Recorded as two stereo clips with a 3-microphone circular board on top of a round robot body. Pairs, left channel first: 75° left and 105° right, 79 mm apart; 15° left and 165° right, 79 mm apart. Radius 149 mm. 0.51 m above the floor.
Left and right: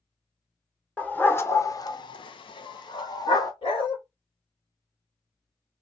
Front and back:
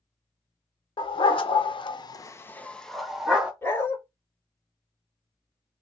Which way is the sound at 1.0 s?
Straight ahead.